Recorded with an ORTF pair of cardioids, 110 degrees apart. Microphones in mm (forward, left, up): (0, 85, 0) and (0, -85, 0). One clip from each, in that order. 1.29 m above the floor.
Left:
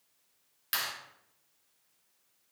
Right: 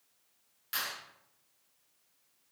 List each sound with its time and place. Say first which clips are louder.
0.7 s a clap: left 2 dB; 50° left, 3.5 m